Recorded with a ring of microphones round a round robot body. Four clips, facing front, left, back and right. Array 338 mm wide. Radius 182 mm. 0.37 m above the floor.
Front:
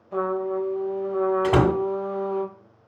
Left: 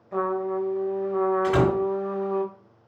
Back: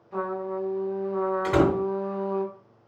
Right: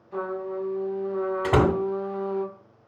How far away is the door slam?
About 2 m.